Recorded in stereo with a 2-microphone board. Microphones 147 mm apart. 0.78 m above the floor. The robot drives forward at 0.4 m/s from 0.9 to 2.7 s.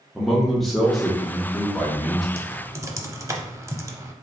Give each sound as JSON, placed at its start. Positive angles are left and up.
{"t": 0.1, "sound": "a man speaking", "side_deg": 0, "distance_m": 1.0}
{"t": 2.4, "sound": "typing on a keyboard", "side_deg": -20, "distance_m": 0.6}